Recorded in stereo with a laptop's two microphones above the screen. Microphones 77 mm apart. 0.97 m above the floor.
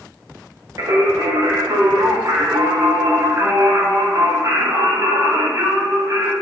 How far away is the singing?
About 0.8 m.